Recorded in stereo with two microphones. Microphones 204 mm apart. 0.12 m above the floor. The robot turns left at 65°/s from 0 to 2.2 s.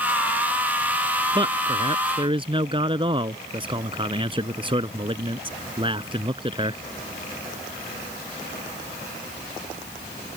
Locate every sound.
1.4 s a man speaking: 25° right (ahead or behind)